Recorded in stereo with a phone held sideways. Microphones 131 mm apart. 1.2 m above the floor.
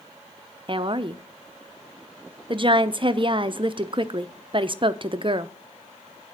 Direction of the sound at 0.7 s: 40° right (ahead or behind).